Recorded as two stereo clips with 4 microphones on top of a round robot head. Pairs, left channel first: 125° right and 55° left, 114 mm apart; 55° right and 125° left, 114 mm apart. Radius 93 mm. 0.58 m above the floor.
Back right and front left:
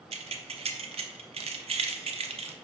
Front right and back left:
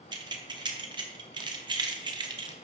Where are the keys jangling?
80° left, 1.0 m.